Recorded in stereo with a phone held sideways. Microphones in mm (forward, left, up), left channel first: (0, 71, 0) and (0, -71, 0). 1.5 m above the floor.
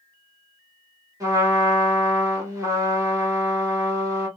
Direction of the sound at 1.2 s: 25° right (ahead or behind).